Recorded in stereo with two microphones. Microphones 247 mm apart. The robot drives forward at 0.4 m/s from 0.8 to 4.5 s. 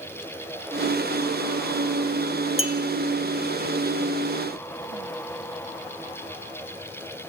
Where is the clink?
60° left (ahead or behind), 1.6 m.